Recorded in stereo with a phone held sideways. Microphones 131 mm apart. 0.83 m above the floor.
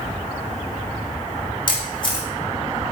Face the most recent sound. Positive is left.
turn(degrees=40)  # may be behind; listen again after turning